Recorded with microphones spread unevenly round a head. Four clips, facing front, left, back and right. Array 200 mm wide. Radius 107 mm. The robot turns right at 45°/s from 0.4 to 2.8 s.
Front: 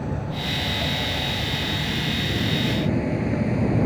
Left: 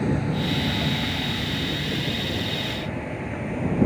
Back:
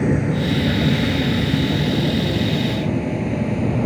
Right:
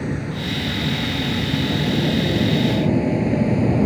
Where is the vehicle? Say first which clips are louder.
Left 1 dB, back 10 dB; 165° left; by 3.9 s 95° right.